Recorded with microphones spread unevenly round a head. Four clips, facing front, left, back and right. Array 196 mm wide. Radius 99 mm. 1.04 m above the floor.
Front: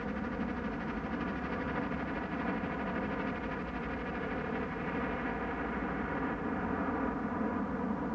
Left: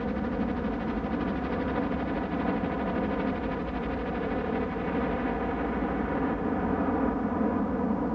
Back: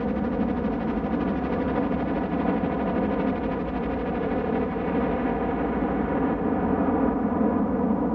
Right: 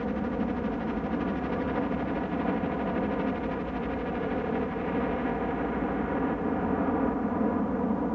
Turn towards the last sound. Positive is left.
turn(degrees=180)